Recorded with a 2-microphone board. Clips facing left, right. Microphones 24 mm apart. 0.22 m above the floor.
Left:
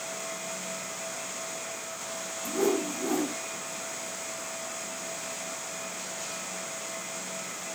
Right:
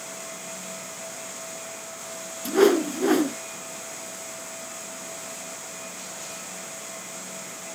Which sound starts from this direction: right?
A whoosh, at 2.5 s.